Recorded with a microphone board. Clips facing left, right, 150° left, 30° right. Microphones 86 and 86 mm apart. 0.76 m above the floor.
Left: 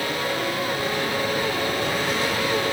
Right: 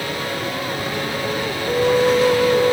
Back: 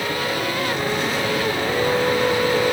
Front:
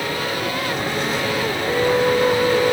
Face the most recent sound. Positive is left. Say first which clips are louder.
# right 9 dB, front 4 dB
turn(degrees=-110)